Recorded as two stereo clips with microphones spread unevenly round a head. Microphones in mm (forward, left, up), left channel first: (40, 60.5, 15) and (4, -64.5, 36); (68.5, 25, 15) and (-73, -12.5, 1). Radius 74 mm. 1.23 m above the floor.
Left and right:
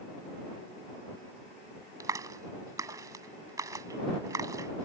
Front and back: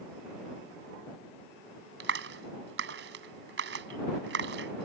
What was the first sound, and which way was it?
A clap, 175° right.